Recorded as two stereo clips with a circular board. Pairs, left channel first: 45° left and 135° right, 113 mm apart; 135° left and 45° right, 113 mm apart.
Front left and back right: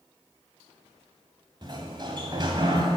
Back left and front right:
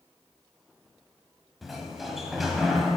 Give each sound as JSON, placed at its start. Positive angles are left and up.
{"t": 1.6, "sound": "a sliding door", "azimuth_deg": -130, "distance_m": 1.2}